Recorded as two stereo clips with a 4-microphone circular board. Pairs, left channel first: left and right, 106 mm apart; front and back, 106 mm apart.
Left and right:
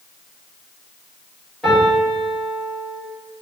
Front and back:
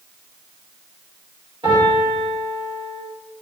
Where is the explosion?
No explosion in this recording.